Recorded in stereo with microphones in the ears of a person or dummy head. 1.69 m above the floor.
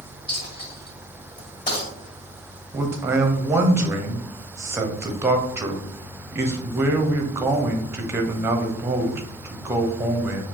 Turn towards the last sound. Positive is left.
turn(degrees=-10)  # may be behind; listen again after turning